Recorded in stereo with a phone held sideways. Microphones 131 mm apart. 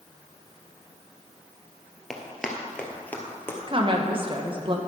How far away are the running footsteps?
About 1.6 m.